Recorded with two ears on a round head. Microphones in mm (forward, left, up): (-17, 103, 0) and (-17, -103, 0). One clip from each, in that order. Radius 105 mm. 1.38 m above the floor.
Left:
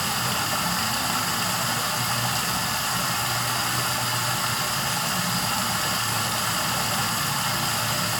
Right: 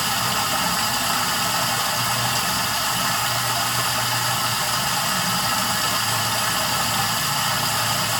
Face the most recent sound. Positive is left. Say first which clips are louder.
# right 3 dB
turn(degrees=-5)  # may be behind; listen again after turning